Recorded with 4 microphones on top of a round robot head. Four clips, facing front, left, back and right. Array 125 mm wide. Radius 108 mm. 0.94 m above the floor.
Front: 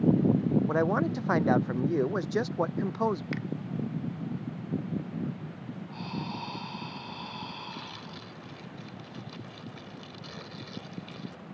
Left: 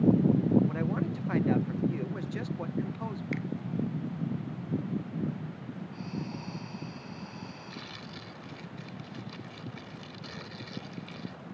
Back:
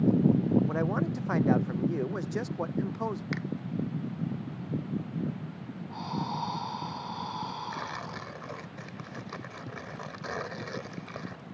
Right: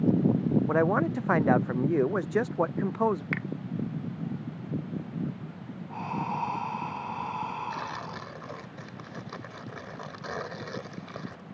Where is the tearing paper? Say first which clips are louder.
Right 9 dB, back 5 dB; 130° right.